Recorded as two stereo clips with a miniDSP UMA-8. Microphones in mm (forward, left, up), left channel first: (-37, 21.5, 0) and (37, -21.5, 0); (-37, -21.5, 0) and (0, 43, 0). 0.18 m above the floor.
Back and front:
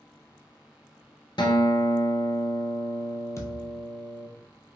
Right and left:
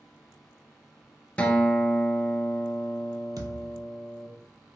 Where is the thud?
100° left, 0.8 m.